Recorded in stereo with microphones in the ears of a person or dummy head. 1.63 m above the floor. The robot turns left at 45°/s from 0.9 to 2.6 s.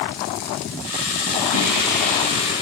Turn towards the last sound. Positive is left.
turn(degrees=-165)